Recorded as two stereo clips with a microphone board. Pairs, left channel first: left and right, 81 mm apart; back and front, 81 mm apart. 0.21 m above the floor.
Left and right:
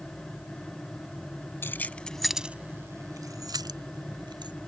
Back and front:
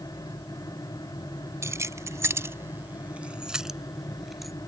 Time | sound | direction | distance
1.6 | keys jangling | 40° left | ?